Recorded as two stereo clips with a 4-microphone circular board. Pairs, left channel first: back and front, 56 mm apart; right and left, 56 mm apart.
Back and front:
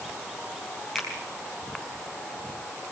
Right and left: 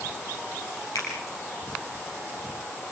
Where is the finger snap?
95° right, 5.5 m.